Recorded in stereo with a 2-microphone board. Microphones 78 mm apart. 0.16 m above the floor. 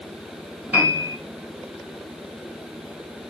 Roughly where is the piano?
Right.